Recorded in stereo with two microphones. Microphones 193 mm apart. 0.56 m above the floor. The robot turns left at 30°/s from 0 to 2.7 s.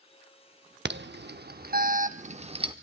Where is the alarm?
65° right (ahead or behind), 0.7 m; by 2.7 s 25° right (ahead or behind), 0.7 m.